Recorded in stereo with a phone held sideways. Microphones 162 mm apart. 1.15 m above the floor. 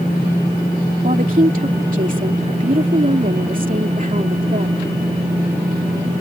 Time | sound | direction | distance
1.0 | a woman speaking | 55° right (ahead or behind) | ?